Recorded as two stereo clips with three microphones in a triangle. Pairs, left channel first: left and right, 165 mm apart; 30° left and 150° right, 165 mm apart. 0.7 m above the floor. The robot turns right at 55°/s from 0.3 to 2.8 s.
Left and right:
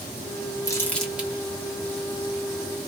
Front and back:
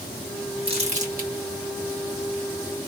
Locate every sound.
0.7 s crumpling: 160° left, 1.2 m; by 1.3 s 165° right, 1.2 m